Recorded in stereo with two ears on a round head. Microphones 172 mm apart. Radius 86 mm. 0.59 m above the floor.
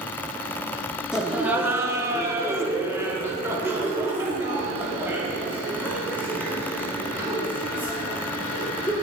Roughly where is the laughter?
Centre.